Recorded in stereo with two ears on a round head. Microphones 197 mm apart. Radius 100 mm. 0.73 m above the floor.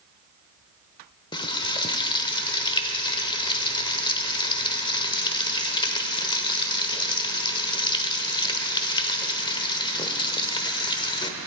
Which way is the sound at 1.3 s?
20° left (ahead or behind).